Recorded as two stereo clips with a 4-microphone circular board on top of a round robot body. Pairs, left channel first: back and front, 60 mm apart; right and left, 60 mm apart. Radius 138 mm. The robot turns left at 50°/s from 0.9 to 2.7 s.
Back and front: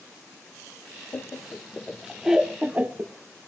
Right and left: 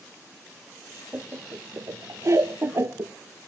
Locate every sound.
1.1 s laughter: 140° left, 0.6 m; by 3.1 s 60° left, 0.6 m